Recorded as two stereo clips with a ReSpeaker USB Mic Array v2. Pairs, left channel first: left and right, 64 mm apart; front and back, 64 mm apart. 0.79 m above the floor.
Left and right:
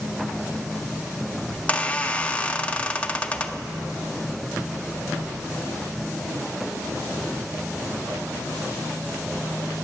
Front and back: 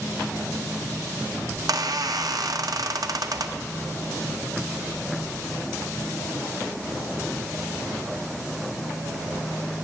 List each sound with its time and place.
1.5 s a squeak: 160° left, 0.6 m